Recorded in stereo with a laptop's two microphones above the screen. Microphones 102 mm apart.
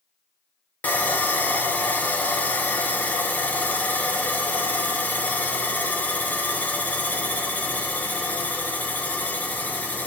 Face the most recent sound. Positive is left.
turn(degrees=15)  # may be behind; listen again after turning